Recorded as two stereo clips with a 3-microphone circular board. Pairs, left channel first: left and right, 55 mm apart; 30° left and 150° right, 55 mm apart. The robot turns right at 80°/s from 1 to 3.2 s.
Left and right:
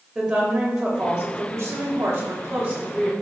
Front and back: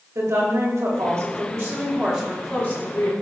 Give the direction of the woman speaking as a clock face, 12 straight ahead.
6 o'clock.